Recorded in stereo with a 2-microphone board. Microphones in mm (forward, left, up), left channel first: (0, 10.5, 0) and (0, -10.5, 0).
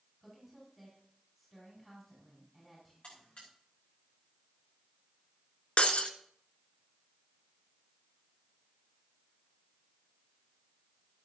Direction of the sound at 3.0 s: 60° left (ahead or behind).